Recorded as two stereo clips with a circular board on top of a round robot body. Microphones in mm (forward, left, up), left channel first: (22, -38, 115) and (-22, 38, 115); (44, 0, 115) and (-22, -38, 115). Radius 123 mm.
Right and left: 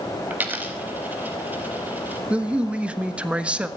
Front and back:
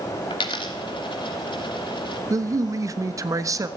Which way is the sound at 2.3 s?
165° right.